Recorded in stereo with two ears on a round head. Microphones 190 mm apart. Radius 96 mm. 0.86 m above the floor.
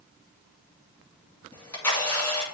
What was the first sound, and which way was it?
A camera shutter, 10° left (ahead or behind).